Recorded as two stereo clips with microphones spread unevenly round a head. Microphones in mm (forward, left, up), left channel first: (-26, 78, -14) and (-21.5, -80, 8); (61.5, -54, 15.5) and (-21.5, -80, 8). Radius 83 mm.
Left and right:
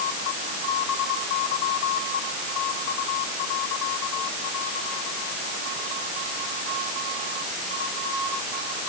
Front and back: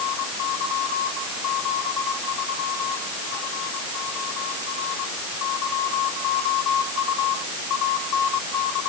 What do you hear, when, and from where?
Only background noise.